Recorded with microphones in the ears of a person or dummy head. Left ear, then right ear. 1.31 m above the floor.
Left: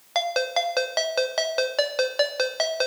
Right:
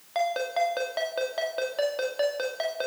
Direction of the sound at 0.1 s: 45° left (ahead or behind).